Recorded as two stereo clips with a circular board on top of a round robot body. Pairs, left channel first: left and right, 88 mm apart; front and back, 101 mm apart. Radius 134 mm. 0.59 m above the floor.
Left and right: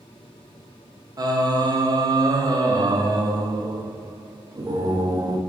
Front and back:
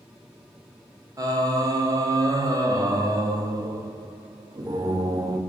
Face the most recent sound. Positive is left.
turn(degrees=-130)